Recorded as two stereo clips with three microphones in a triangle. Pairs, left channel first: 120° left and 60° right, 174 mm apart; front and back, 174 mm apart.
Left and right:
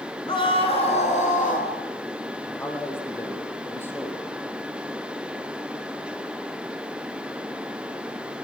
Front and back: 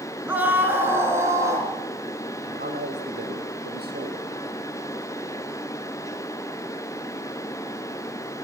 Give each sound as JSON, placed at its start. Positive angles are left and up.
{"t": 0.3, "sound": "a scream", "azimuth_deg": 110, "distance_m": 1.8}
{"t": 2.5, "sound": "a man speaking", "azimuth_deg": -165, "distance_m": 4.5}